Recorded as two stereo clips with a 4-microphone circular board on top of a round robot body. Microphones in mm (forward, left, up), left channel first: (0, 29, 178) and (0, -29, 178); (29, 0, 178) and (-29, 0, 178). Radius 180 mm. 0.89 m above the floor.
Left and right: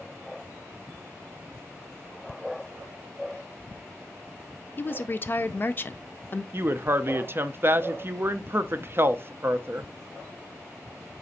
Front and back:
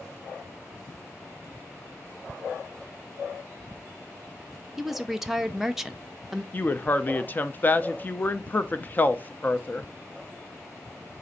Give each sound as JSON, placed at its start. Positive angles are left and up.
{"t": 4.8, "sound": "a woman speaking", "azimuth_deg": 100, "distance_m": 0.5}
{"t": 6.5, "sound": "a woman speaking", "azimuth_deg": -50, "distance_m": 0.6}